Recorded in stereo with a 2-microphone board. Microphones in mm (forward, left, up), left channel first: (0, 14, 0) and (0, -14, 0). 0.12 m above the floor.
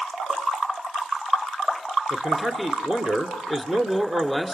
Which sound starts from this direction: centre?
A man speaking, at 2.1 s.